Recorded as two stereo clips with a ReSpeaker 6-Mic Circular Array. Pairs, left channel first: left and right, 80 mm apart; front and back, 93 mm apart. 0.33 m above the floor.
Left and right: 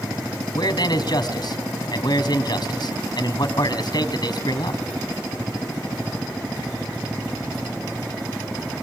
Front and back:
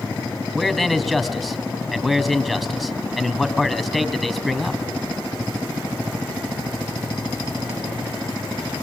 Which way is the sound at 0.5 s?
90° left.